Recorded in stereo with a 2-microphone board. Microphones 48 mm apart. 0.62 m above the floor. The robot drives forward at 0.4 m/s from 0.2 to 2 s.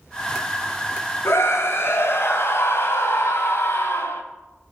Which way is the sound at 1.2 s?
60° left (ahead or behind).